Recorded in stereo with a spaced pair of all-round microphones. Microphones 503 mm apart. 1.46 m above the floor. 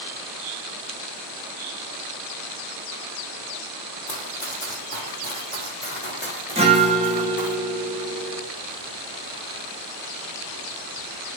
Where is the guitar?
10° right (ahead or behind), 1.9 m.